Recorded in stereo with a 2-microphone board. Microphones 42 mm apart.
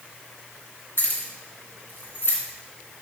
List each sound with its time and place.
1.0 s keys jangling: 60° left (ahead or behind), 3 m